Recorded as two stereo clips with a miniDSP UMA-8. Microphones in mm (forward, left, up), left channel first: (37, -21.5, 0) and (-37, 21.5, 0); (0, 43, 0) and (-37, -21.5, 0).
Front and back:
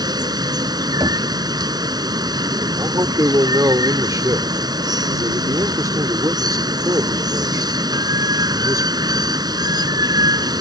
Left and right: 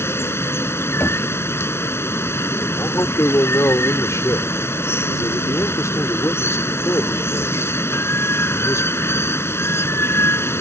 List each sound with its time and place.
0.0 s running water: 115° left
1.0 s knocking: 120° left
2.8 s a man speaking: 105° left